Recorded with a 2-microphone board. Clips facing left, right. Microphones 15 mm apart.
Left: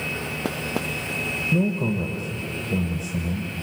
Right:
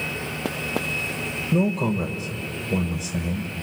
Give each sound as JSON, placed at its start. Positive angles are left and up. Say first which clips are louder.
{"t": 1.5, "sound": "a man speaking", "louder": "right 3 dB", "side_deg": -30, "distance_m": 1.6}